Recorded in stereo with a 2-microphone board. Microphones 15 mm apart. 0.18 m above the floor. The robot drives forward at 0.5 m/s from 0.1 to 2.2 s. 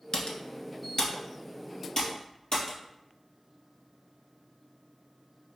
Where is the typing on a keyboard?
70° left (ahead or behind), 0.6 m; by 2.8 s 25° left (ahead or behind), 1.2 m.